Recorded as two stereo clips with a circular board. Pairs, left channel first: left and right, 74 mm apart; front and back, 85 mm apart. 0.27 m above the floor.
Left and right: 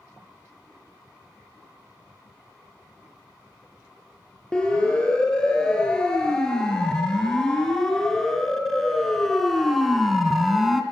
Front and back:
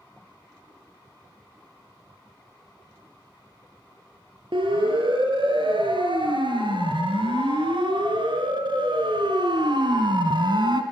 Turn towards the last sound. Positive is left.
turn(degrees=-175)